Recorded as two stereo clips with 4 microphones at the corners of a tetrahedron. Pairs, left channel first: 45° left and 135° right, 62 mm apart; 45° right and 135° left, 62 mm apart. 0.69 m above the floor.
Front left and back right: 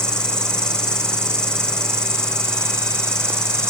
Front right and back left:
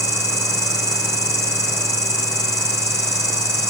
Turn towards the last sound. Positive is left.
turn(degrees=-30)